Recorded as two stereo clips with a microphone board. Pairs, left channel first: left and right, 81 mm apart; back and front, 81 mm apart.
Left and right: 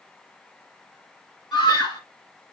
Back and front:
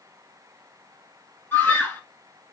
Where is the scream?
115° left, 3 m.